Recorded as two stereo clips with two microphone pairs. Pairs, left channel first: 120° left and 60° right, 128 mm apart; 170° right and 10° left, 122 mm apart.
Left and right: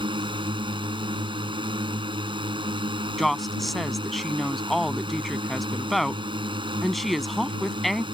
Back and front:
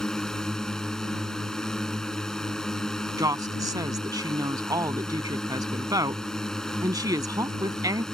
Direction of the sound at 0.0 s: 85° right.